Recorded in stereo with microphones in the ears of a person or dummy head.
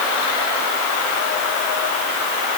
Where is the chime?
No chime in this recording.